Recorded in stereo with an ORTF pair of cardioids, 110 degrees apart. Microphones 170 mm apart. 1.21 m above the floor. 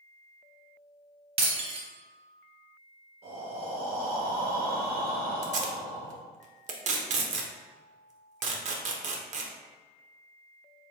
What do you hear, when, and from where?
1.4 s breaking glass: 35° right, 1.2 m
3.2 s breathing: 60° right, 1.8 m
5.4 s tape being pulled: 45° right, 0.8 m